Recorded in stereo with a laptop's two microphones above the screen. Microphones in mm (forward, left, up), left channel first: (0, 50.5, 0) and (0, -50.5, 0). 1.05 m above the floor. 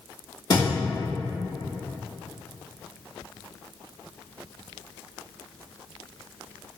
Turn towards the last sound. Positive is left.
turn(degrees=45)  # may be behind; listen again after turning